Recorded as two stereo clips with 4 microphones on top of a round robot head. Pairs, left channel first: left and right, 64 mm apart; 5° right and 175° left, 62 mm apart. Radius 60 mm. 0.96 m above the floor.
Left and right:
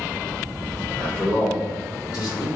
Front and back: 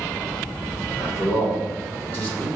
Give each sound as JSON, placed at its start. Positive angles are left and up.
{"t": 1.0, "sound": "a man speaking", "azimuth_deg": 20, "distance_m": 3.5}